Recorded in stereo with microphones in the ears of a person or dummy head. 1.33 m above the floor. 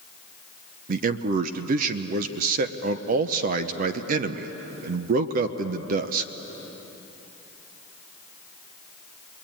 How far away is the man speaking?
About 0.8 m.